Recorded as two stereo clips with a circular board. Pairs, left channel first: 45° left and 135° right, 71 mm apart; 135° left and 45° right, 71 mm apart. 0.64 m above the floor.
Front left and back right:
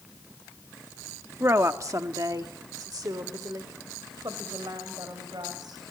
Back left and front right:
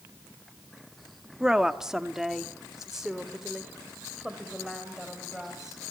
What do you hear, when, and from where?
1.4 s a woman speaking: 120° right, 0.7 m; by 5.8 s 130° right, 3.5 m